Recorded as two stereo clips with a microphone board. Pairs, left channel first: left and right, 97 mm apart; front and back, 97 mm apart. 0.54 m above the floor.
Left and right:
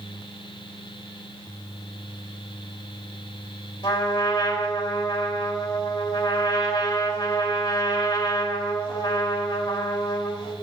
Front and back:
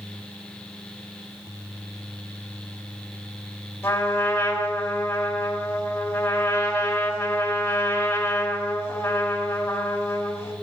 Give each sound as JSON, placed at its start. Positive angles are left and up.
{"t": 3.8, "sound": "a trumpet", "azimuth_deg": 60, "distance_m": 2.0}